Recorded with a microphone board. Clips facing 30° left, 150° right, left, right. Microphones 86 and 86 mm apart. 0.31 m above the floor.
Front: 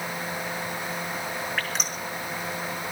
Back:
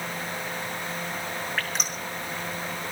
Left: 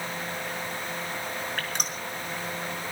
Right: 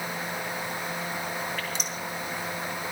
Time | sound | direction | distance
1.6 | dripping | 120° left | 3.5 m